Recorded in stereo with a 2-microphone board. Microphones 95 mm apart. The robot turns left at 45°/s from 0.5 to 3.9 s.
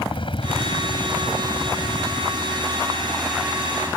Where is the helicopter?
60° left (ahead or behind); by 4.0 s 25° right (ahead or behind).